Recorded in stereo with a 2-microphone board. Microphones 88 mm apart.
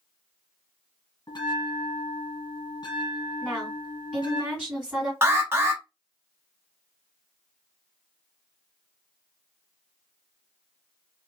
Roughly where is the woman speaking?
Centre.